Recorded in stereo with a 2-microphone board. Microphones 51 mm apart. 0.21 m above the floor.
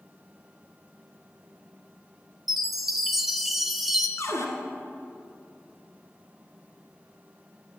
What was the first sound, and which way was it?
A chime, 5° right (ahead or behind).